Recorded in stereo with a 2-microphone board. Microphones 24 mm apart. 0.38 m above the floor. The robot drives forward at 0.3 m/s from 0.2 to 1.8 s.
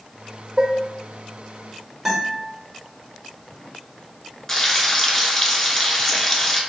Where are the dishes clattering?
25° right (ahead or behind), 0.7 m.